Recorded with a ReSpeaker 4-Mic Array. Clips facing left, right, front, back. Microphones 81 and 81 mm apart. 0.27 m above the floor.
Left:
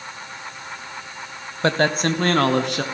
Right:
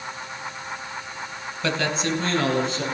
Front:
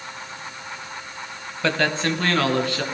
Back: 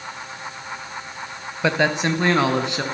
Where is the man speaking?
110° left, 1.4 m.